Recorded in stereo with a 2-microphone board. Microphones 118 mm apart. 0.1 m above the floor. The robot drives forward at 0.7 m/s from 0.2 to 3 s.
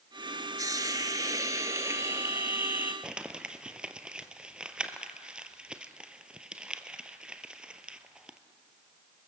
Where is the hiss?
30° right (ahead or behind), 1.0 m; by 2.9 s 15° right (ahead or behind), 1.8 m.